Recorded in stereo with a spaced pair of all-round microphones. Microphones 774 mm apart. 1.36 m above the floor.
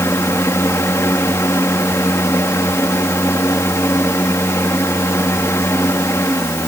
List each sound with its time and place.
0.0 s a fan: 5° left (ahead or behind)